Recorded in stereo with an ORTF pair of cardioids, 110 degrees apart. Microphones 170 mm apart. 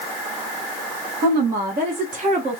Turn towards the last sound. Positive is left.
turn(degrees=-35)